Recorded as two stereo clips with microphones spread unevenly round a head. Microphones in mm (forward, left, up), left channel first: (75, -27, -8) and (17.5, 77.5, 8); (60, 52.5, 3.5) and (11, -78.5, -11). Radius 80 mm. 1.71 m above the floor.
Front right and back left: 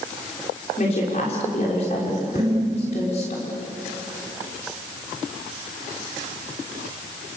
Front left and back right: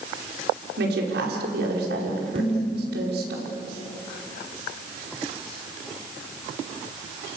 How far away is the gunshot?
No gunshot in this recording.